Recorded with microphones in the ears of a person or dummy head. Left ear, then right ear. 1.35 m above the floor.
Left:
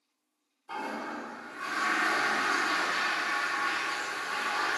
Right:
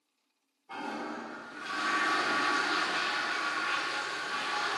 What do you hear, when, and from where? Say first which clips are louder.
0.7 s a toilet flushing: left 2 dB; 45° left (ahead or behind), 1.0 m